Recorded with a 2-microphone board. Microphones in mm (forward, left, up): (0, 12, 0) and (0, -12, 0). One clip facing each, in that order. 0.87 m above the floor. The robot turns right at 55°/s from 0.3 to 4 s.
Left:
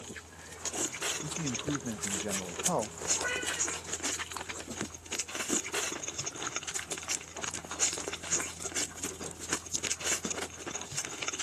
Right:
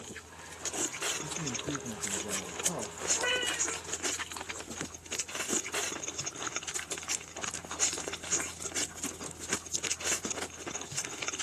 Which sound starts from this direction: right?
A cat meowing, at 3.1 s.